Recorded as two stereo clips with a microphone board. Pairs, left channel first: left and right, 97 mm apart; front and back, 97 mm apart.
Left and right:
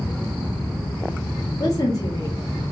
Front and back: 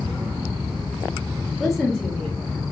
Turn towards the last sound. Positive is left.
turn(degrees=80)